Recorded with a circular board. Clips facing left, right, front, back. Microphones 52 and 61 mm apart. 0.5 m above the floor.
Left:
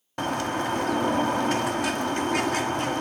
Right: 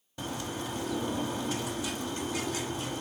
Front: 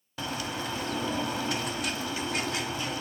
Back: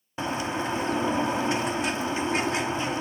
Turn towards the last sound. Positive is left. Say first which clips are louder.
# left 10 dB, back 5 dB
turn(degrees=115)